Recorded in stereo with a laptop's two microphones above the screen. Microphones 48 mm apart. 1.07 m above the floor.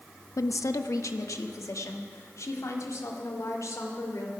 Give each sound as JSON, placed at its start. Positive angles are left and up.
{"t": 0.4, "sound": "a woman speaking", "side_deg": 85, "distance_m": 0.6}